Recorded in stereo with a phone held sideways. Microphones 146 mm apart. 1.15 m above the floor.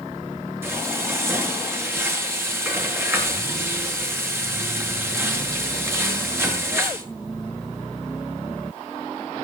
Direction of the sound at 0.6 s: 15° right (ahead or behind).